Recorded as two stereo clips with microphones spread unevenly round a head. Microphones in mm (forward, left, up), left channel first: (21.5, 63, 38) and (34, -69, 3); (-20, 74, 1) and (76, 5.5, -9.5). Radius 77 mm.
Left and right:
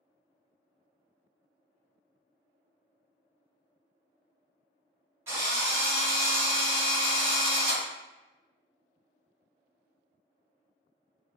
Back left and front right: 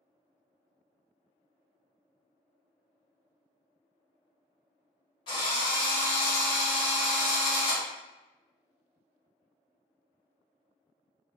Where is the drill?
150° right, 1.0 m.